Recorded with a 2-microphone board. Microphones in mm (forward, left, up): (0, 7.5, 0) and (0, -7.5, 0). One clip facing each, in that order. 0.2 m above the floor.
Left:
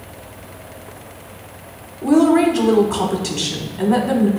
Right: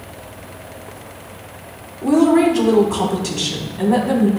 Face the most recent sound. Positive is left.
turn(degrees=5)  # may be behind; listen again after turning